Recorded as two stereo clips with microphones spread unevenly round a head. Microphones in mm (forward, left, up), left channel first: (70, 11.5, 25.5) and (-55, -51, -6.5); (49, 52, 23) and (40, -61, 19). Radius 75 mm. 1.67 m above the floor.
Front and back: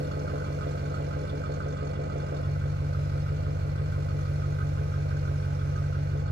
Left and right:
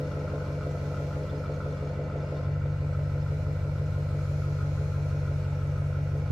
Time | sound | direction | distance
0.0 | an engine running | 175° left | 0.7 m